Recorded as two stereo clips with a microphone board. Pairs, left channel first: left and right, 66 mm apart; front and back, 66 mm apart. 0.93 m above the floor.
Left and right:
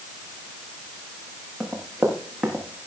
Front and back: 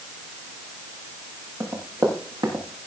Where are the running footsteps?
Straight behind, 6 m; by 2.8 s 175° right, 5.5 m.